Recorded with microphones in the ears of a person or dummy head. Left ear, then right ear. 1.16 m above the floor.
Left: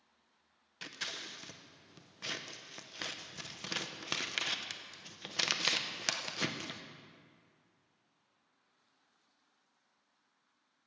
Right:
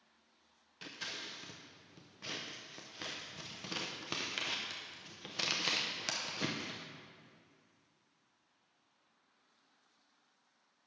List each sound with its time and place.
0.8 s scissors: 25° left (ahead or behind), 0.5 m